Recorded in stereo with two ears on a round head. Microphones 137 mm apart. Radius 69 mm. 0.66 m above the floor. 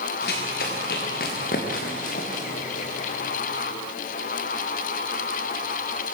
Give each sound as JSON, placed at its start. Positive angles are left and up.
{"t": 0.2, "sound": "running footsteps", "side_deg": 80, "distance_m": 6.5}